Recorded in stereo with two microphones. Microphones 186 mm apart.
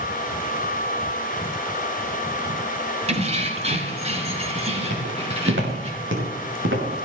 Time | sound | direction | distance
3.1 | keys jangling | 35° right (ahead or behind) | 1.7 m
4.9 | footsteps | 85° right | 5 m